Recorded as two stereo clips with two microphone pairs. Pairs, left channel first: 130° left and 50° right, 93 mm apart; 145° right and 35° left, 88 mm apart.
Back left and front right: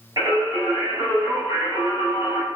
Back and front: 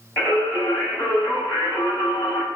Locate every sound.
0.2 s singing: 85° right, 1.4 m